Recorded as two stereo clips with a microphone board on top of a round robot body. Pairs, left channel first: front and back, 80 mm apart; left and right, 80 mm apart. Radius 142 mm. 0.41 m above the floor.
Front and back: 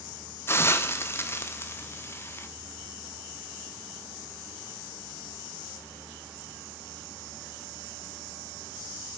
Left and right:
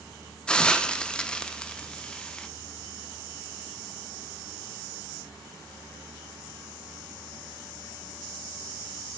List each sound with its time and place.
0.5 s a hiss: 20° left, 0.9 m